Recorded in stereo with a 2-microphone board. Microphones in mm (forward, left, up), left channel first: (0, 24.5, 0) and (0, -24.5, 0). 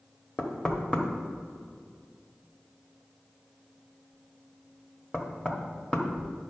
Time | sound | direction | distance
0.4 | knocking | 20° left (ahead or behind) | 1.2 m